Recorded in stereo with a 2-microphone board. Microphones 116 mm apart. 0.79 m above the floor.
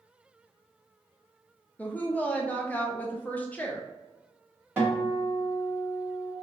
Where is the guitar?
15° right (ahead or behind), 1.3 m.